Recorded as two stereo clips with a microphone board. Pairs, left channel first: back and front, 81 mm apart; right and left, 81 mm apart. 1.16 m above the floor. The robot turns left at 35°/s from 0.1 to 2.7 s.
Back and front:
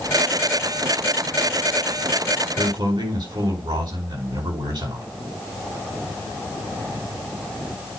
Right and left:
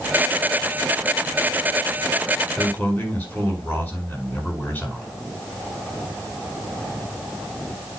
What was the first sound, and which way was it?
A man speaking, 15° right.